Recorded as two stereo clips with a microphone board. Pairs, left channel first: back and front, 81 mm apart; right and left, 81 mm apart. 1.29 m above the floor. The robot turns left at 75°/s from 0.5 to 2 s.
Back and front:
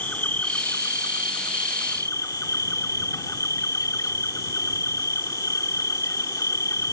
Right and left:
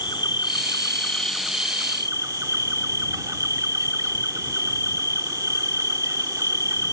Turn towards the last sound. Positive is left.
turn(degrees=135)